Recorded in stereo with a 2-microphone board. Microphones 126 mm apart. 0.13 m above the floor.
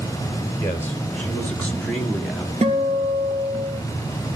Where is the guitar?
60° right (ahead or behind), 2.5 m.